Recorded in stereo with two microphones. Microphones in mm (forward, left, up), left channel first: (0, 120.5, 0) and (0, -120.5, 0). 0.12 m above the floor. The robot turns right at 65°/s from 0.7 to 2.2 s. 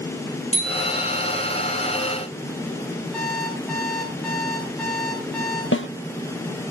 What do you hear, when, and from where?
0.5 s a bicycle bell: 25° left, 7.5 m; by 1.4 s 70° left, 7.5 m
3.1 s an alarm clock: 5° left (ahead or behind), 9.5 m
5.7 s a snare drum: 60° left (ahead or behind), 1.5 m